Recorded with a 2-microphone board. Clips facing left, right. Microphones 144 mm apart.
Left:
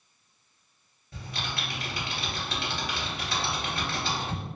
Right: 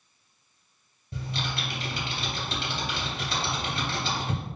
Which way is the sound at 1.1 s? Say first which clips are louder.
Right 3 dB; 25° right (ahead or behind).